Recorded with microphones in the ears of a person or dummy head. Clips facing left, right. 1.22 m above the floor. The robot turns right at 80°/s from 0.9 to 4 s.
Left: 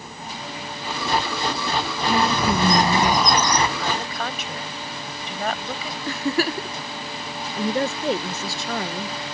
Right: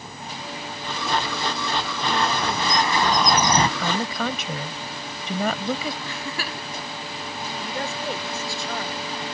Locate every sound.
2.1 s a bird: 80° left; by 3.7 s 150° right
3.8 s a woman speaking: 65° right (ahead or behind); by 6.0 s 80° right
6.1 s a giggle: 35° left (ahead or behind)
7.6 s a woman speaking: 60° left (ahead or behind)